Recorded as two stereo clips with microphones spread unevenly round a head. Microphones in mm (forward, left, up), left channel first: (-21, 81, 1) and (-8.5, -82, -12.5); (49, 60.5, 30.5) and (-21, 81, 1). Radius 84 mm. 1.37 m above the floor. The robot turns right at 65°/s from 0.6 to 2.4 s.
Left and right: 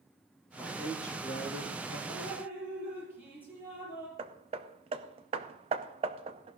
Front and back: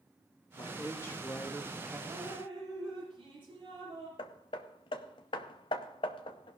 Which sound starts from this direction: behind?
Dripping, at 2.1 s.